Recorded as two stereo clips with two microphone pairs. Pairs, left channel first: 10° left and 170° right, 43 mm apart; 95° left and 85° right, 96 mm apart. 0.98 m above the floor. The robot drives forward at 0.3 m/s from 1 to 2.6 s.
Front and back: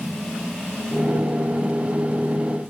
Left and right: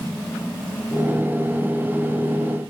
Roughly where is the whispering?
No whispering in this recording.